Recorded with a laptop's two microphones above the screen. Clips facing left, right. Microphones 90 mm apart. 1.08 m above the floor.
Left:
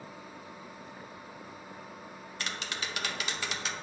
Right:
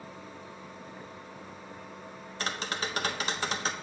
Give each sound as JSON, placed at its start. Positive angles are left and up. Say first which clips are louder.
{"t": 0.0, "sound": "a machine running", "louder": "right 1 dB", "side_deg": 5, "distance_m": 1.8}
{"t": 2.4, "sound": "tapping", "louder": "right 5 dB", "side_deg": -40, "distance_m": 1.2}